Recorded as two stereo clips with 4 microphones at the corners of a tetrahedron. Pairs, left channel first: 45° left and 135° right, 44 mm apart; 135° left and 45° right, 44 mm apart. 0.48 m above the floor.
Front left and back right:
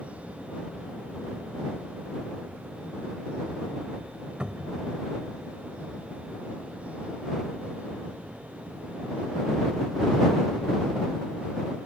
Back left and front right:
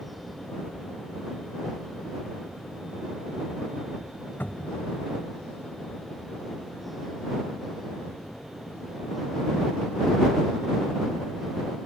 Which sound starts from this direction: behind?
A cupboard door, at 4.4 s.